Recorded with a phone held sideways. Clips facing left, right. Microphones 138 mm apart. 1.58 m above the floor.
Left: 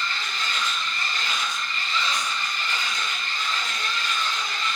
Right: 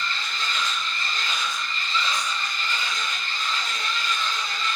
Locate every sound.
0.0 s a machine running: 75° left (ahead or behind), 0.7 m